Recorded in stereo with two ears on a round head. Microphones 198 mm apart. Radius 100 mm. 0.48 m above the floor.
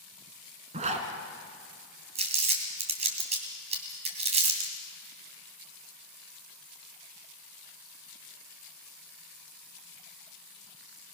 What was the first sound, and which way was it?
A zipper, 30° right (ahead or behind).